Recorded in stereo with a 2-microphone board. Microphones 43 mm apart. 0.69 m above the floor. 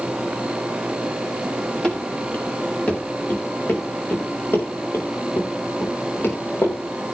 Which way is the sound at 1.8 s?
20° left (ahead or behind).